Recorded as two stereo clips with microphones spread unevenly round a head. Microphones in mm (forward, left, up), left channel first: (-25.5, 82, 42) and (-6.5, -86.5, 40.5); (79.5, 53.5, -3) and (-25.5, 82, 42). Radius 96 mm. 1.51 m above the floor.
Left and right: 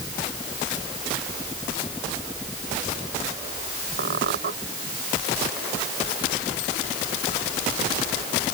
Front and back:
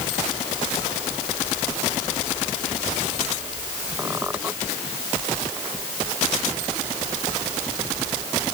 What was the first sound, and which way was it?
A squeak, 115° right.